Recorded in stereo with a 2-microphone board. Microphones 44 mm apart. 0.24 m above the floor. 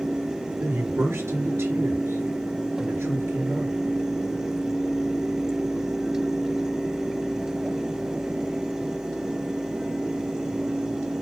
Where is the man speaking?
70° right (ahead or behind), 4 m.